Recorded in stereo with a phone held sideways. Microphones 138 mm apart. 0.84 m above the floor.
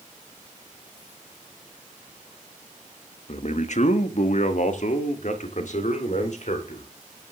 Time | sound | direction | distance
3.3 | a man speaking | 50° left (ahead or behind) | 1.1 m